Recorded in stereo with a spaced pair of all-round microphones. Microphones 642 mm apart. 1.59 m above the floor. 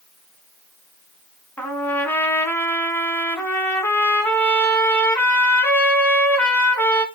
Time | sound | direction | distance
1.6 | a trumpet | 5° left (ahead or behind) | 3 m